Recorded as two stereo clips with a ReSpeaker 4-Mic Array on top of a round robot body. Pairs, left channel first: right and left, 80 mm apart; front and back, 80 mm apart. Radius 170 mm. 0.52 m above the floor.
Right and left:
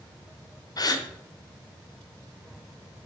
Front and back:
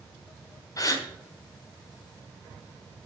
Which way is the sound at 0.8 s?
45° right.